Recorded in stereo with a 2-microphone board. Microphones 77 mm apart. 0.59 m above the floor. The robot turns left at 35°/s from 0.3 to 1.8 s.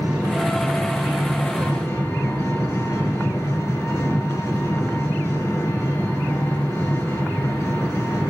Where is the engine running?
165° right, 7.5 m; by 8.3 s 140° left, 7.5 m.